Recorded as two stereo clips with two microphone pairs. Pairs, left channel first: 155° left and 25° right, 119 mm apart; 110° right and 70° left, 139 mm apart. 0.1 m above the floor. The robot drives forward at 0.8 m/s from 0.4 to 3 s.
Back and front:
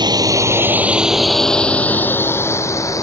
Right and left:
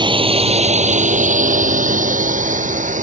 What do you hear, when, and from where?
0.0 s a drone: 20° left; by 3.0 s 90° left